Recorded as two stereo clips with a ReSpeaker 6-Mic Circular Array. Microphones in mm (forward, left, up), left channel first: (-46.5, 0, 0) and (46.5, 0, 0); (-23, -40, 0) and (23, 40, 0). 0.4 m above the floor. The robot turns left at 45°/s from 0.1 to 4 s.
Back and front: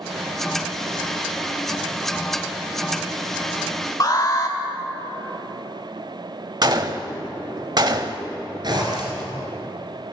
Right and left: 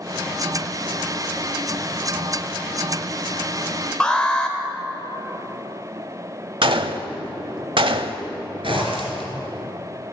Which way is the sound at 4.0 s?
165° left.